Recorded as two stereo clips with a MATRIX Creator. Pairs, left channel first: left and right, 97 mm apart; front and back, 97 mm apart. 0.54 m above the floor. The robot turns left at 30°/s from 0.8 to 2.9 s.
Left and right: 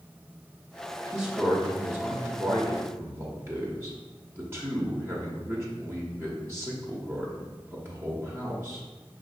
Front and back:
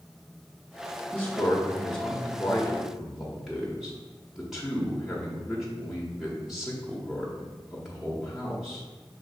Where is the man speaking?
45° right, 0.9 m; by 8.8 s 100° right, 0.9 m.